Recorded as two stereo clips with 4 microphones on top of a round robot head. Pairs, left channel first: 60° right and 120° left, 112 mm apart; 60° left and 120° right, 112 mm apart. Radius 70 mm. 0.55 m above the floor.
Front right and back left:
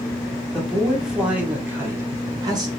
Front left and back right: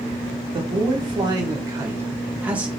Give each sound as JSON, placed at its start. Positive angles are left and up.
{"t": 0.5, "sound": "a man speaking", "azimuth_deg": -145, "distance_m": 1.8}